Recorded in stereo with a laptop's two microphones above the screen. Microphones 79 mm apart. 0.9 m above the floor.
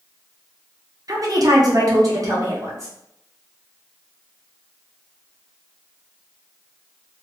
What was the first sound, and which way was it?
A woman speaking, 50° right (ahead or behind).